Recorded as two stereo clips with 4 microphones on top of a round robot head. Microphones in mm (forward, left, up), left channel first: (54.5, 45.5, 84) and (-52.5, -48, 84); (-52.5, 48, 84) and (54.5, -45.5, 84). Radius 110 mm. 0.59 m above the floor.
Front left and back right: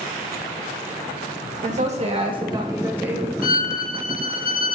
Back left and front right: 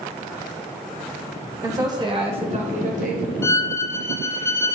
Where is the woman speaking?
110° right, 2.5 m; by 3.3 s 55° right, 2.5 m.